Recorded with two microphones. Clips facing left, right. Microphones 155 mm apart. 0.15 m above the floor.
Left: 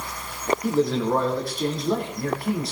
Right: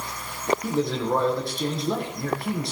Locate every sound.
0.6 s a man speaking: centre (ahead or behind), 7 m